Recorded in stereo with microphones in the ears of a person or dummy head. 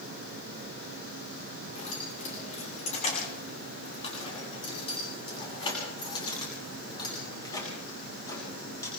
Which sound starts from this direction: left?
Keys jangling, at 1.8 s.